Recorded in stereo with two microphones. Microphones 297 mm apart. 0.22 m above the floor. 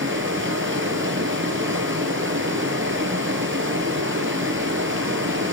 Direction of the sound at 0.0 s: 40° right (ahead or behind).